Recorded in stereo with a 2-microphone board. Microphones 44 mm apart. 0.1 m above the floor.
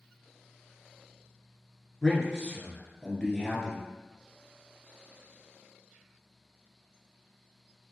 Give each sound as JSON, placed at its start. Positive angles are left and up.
{"t": 2.0, "sound": "a man speaking", "side_deg": 10, "distance_m": 1.4}